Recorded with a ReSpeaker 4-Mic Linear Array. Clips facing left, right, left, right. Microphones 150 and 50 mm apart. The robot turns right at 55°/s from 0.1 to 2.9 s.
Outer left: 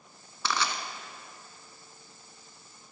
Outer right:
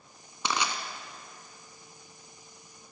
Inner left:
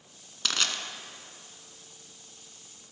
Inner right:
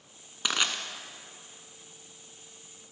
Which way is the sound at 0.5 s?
20° right (ahead or behind).